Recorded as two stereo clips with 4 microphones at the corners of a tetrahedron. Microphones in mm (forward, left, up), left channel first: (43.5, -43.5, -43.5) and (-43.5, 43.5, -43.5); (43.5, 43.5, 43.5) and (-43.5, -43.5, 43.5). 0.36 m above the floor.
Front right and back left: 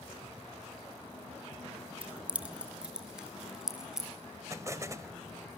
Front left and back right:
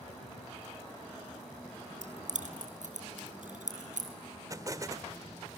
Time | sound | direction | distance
2.0 | keys jangling | 145° right | 2 m
4.5 | an explosion | 175° right | 1.2 m